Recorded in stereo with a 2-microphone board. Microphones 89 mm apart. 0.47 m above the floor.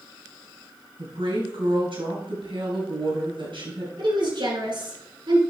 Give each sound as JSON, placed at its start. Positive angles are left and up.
{"t": 1.0, "sound": "a woman speaking", "side_deg": -80, "distance_m": 4.0}
{"t": 4.0, "sound": "a woman speaking", "side_deg": -65, "distance_m": 4.5}